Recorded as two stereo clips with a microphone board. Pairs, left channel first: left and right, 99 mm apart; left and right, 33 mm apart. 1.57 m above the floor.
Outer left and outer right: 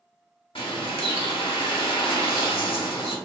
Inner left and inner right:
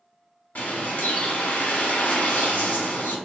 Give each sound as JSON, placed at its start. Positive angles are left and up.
{"t": 0.6, "sound": "a bird", "side_deg": 70, "distance_m": 0.8}